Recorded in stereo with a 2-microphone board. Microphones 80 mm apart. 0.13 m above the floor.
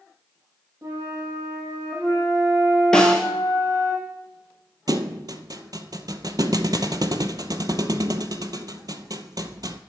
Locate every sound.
0.8 s a flute: 35° right (ahead or behind), 5 m
2.9 s a snare drum: 10° left (ahead or behind), 1.3 m
4.9 s a thud: 60° right (ahead or behind), 0.5 m